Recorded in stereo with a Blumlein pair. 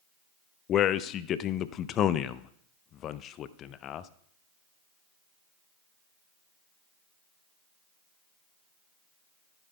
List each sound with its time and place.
0.7 s a man speaking: 30° left, 0.6 m